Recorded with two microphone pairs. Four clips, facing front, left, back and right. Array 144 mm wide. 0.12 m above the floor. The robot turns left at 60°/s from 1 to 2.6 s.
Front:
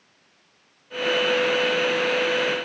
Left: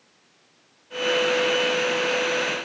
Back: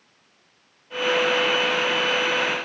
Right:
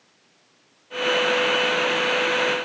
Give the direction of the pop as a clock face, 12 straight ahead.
No pop in this recording.